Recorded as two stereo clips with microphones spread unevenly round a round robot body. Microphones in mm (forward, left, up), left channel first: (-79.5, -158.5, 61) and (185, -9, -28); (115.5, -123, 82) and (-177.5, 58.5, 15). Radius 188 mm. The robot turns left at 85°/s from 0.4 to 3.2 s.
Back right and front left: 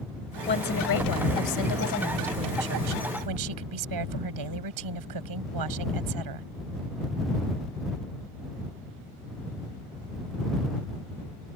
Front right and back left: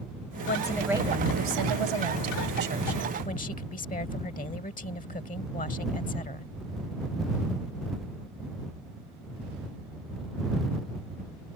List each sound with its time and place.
0.5 s a woman speaking: 90° right; by 6.5 s 40° left